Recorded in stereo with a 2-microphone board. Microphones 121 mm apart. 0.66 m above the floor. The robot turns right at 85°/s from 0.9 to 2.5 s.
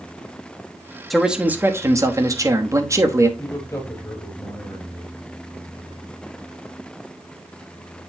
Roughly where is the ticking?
I don't hear ticking.